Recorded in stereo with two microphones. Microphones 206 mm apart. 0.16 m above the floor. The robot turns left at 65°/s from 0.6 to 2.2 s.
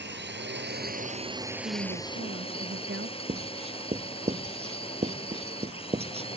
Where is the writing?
30° right (ahead or behind).